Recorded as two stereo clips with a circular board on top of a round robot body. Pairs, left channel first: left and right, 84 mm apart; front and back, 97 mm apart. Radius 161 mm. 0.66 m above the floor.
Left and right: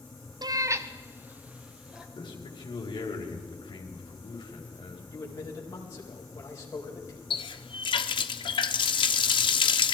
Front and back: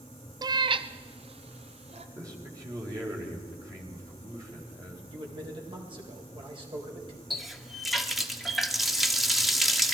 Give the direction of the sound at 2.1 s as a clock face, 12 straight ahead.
8 o'clock.